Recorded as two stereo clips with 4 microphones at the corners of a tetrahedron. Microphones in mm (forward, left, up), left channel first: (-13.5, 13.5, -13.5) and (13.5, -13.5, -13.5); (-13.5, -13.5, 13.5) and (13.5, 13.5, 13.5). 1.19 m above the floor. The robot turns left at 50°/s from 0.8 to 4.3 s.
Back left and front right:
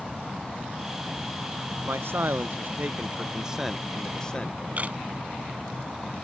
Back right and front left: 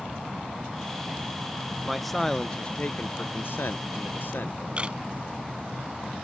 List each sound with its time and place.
1.9 s a man speaking: 35° right; by 5.0 s 160° right
4.8 s a camera shutter: 5° right